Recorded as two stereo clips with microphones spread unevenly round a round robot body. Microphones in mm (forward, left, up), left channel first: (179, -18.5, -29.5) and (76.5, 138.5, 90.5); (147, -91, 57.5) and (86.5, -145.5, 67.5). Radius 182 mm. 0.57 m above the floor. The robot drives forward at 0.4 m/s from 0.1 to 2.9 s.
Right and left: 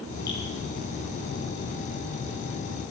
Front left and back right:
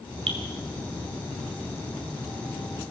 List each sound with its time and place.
0.3 s dripping: 130° right, 2.5 m